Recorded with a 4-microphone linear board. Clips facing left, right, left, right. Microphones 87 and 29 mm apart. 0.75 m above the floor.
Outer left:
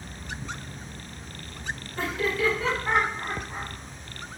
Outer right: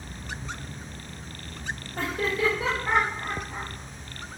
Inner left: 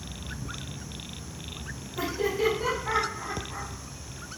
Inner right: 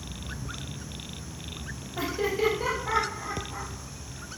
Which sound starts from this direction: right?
Laughter, at 2.0 s.